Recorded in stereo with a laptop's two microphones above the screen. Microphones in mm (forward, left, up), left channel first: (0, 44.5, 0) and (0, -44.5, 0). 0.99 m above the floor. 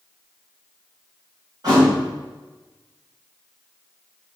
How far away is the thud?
About 3.5 m.